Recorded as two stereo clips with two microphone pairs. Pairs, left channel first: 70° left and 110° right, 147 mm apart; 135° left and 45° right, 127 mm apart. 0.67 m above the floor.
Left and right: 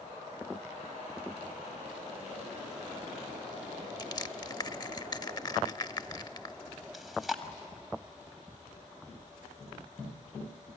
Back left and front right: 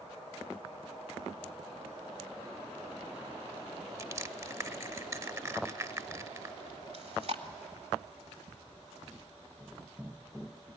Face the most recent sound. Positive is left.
turn(degrees=-20)